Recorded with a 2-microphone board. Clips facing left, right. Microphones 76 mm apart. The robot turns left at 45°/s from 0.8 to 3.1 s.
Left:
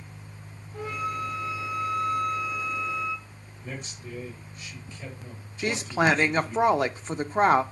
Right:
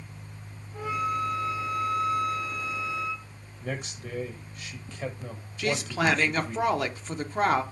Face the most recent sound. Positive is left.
turn(degrees=25)  # may be behind; listen again after turning